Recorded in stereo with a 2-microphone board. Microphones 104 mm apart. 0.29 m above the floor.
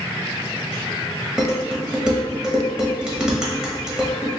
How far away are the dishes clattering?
About 0.8 m.